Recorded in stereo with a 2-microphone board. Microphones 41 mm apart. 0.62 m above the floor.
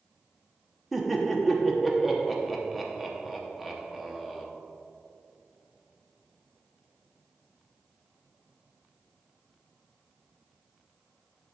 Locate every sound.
0.9 s laughter: 5° right (ahead or behind), 0.8 m